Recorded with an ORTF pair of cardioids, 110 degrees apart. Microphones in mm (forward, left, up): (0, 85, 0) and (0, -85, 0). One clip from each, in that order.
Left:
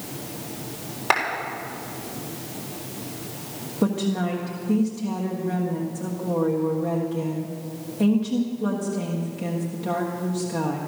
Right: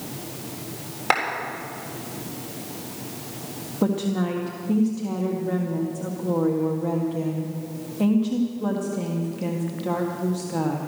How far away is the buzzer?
I don't hear a buzzer.